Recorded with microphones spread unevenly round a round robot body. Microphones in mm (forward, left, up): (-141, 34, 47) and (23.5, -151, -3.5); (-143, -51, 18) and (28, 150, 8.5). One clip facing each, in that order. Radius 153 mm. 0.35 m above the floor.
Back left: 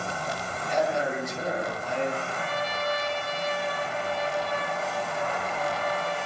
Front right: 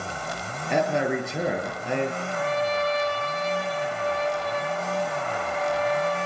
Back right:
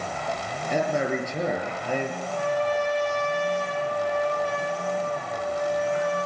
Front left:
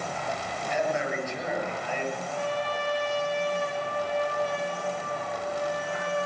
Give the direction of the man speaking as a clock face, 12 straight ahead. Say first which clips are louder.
Front right 3 dB, back right 4 dB; 2 o'clock.